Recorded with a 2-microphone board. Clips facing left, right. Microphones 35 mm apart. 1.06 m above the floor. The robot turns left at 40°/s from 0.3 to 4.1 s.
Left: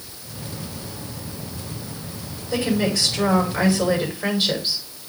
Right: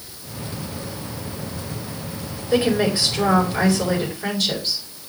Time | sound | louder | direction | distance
2.5 | a woman speaking | right 3 dB | 135° right | 3 m